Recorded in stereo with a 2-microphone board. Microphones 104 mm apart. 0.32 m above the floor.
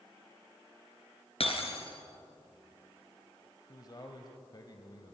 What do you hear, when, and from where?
1.4 s breaking glass: 70° left (ahead or behind), 2.5 m
3.7 s a man speaking: 40° left (ahead or behind), 1.5 m